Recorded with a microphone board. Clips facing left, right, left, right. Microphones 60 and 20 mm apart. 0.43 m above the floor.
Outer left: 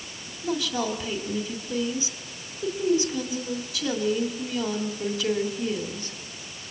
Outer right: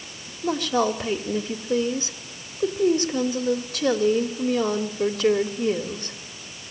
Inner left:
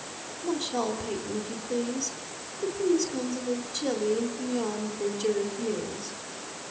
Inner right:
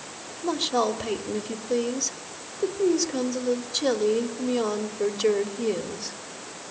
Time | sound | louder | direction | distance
0.4 | a woman speaking | outer right 5 dB, inner right 5 dB | 50° right (ahead or behind) | 1.7 m